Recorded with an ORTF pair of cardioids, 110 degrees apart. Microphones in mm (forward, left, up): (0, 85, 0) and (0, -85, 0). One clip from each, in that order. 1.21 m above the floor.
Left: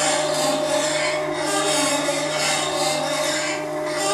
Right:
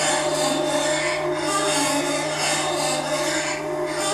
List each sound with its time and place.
0.0 s a machine running: 60° left, 1.2 m